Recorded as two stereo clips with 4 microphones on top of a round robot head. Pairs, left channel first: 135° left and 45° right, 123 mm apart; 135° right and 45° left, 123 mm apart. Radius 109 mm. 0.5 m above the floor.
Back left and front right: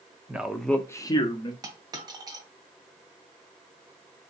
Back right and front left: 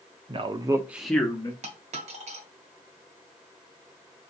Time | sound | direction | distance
0.3 | a man speaking | 30° left | 1.0 m
1.6 | a dropped coin | 15° left | 1.6 m